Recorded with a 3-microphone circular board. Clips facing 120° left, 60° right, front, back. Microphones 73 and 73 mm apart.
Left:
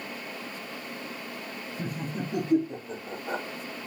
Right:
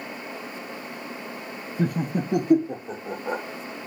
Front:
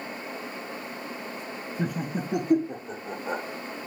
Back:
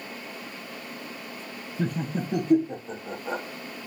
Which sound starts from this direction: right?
Laughter, at 1.8 s.